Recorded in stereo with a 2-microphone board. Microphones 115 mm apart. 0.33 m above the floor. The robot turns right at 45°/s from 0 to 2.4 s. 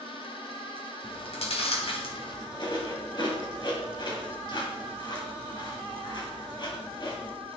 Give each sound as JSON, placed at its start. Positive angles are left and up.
{"t": 1.0, "sound": "chewing", "side_deg": 50, "distance_m": 2.0}